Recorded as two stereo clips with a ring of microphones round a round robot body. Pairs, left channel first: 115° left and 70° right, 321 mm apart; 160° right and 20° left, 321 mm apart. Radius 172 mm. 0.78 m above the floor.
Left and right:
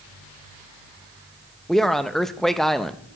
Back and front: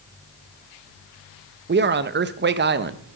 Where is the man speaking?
25° left, 0.5 m.